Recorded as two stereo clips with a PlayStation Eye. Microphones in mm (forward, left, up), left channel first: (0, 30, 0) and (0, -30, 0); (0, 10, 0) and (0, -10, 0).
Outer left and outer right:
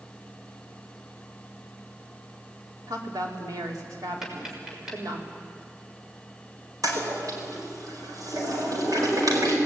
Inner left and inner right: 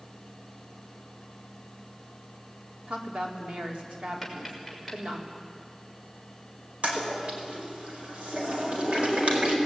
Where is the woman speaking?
80° right, 4.5 m.